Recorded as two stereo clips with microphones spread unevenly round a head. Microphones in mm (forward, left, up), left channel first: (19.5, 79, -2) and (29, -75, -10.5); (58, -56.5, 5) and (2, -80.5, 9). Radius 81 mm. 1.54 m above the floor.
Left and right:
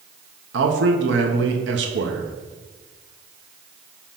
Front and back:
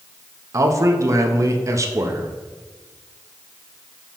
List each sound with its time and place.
0.5 s a man speaking: 115° right, 1.0 m